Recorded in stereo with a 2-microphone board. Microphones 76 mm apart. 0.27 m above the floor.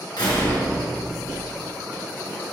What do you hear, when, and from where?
0.2 s a door slam: 70° left (ahead or behind), 3 m